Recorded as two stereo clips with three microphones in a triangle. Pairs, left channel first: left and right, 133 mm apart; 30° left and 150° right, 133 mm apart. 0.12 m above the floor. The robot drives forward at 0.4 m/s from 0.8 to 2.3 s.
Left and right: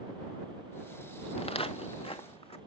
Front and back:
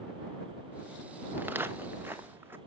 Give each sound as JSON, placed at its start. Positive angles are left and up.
{"t": 1.4, "sound": "footsteps", "azimuth_deg": 135, "distance_m": 1.1}